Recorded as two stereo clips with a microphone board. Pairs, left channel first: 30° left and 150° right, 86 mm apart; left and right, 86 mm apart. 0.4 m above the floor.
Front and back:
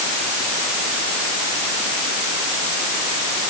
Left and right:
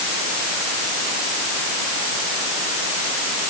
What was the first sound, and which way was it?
Only background noise.